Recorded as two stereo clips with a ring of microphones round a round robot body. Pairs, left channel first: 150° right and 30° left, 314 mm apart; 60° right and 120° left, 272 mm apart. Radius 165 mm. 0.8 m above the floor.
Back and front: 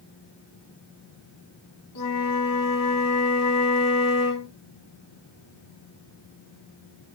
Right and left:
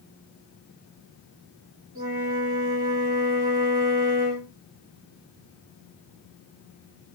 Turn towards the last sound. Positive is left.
turn(degrees=-175)